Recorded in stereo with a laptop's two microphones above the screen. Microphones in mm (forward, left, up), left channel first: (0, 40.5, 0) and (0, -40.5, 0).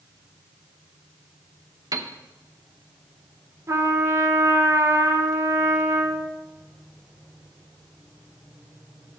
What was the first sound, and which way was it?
A piano, 50° right (ahead or behind).